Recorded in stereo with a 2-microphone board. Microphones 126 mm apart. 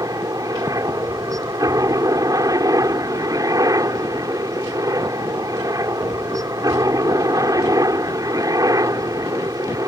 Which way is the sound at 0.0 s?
25° right (ahead or behind).